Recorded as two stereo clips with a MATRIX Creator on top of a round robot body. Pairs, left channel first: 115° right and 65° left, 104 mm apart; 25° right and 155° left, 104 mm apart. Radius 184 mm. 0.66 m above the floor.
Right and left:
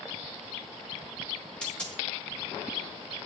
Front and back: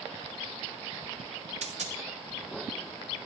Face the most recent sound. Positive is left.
turn(degrees=165)